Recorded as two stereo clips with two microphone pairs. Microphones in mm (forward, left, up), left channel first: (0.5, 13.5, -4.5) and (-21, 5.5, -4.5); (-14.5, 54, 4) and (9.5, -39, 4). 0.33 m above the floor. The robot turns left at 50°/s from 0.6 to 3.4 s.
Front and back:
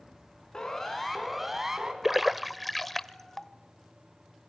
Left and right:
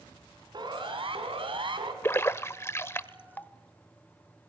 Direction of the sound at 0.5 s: 40° right.